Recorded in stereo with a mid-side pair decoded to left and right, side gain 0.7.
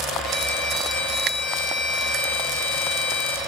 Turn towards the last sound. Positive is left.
turn(degrees=65)